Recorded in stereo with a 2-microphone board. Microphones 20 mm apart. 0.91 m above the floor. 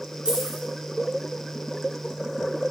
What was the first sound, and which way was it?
Keys jangling, 65° right (ahead or behind).